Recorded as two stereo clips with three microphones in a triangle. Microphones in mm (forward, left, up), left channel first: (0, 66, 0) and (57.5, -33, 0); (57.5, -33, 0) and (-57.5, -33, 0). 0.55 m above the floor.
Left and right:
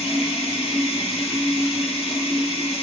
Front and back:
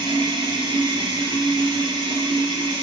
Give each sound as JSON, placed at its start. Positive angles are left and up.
{"t": 0.0, "sound": "running water", "azimuth_deg": 140, "distance_m": 0.9}